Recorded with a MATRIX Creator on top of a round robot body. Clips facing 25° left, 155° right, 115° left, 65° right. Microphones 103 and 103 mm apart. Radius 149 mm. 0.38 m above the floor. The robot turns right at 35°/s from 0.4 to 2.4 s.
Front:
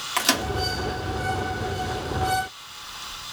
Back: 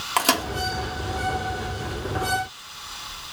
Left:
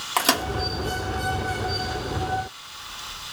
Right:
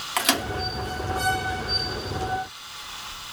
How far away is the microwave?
About 1.6 m.